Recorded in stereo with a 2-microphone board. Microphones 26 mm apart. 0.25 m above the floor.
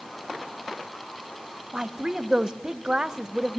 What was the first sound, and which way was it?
A woman speaking, 30° right (ahead or behind).